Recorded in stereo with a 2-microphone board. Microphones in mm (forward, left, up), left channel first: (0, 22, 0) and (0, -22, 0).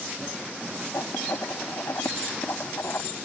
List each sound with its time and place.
0.9 s writing: 75° left (ahead or behind)